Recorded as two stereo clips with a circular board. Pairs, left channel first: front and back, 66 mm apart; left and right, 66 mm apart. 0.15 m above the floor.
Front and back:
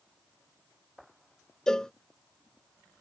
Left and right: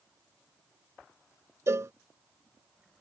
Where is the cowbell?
75° right.